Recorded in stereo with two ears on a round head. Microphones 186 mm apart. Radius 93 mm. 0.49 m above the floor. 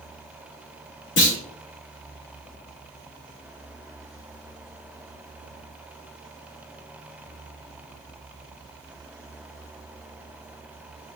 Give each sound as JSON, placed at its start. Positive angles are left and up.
{"t": 1.2, "sound": "a clunk", "side_deg": 60, "distance_m": 4.5}